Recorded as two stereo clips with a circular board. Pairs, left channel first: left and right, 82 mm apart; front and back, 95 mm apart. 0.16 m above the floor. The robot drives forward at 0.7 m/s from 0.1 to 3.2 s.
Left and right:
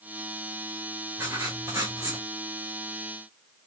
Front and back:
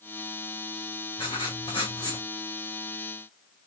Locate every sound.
1.2 s writing: 35° right, 3 m; by 2.3 s 45° right, 2.5 m